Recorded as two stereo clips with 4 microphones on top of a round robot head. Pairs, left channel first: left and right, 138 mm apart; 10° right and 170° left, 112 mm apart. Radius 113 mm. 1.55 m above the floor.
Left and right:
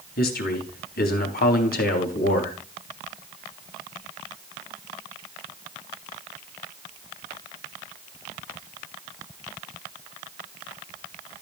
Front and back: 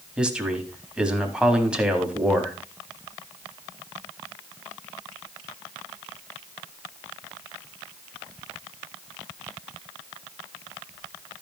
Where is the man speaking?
85° left, 3.5 m.